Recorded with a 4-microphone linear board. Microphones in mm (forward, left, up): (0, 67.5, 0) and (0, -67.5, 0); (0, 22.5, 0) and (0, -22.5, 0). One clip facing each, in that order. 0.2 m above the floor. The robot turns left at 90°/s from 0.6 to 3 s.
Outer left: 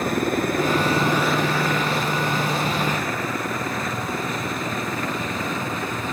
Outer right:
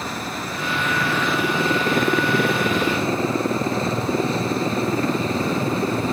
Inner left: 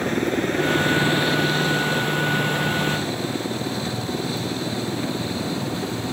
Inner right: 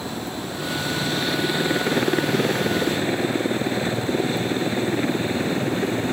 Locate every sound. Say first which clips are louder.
0.0 s a helicopter: outer left 7 dB, inner left 8 dB; 55° left (ahead or behind); by 6.1 s 35° right (ahead or behind)